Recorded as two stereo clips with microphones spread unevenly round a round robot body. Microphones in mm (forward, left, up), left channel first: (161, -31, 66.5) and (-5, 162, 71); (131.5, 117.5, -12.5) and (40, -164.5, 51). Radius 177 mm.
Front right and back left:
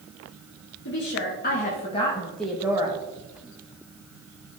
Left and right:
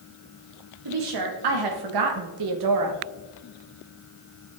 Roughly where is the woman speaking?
Right.